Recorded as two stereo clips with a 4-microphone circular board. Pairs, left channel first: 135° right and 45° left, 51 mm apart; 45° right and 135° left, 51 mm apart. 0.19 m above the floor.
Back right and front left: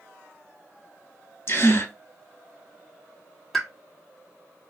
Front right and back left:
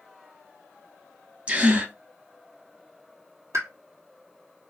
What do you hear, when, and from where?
1.5 s a gasp: 165° right, 0.9 m
3.5 s a pop: 135° left, 0.9 m